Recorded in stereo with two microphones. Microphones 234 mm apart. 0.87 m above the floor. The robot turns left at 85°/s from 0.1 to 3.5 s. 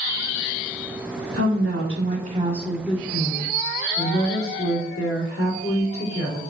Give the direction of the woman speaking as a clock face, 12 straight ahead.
2 o'clock.